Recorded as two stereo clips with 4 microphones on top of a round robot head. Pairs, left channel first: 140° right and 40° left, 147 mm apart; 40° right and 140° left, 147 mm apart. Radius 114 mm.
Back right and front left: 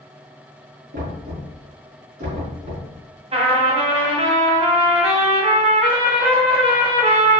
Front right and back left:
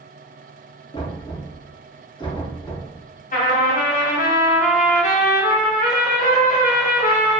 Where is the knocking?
20° left, 4.5 m.